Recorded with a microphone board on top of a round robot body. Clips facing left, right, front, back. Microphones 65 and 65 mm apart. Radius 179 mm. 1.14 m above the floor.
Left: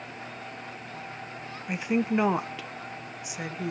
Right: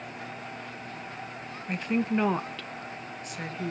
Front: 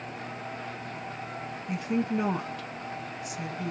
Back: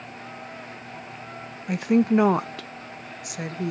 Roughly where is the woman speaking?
Behind.